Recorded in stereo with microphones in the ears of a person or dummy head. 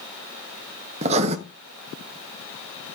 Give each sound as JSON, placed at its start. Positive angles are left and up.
{"t": 1.0, "sound": "writing", "side_deg": -35, "distance_m": 1.0}